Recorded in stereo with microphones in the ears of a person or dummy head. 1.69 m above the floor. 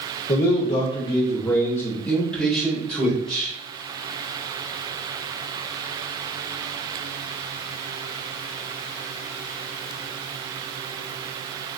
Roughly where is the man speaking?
Left.